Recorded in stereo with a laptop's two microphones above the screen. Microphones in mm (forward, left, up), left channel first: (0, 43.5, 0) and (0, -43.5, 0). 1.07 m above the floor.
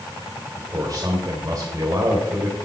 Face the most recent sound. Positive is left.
turn(degrees=-45)  # may be behind; listen again after turning